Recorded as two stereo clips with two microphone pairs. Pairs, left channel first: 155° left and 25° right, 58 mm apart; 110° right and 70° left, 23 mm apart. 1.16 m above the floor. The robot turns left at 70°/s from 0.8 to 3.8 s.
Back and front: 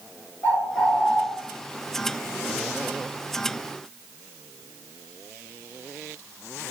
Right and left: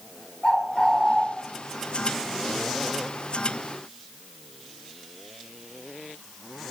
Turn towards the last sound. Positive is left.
turn(degrees=-5)